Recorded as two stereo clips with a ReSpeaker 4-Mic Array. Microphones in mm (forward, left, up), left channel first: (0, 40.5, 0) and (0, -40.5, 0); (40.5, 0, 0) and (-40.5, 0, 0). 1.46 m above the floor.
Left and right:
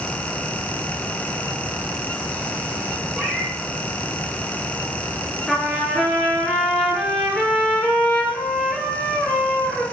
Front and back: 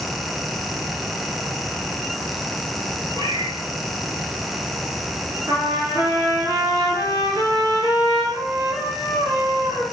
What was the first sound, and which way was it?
A cat meowing, 165° left.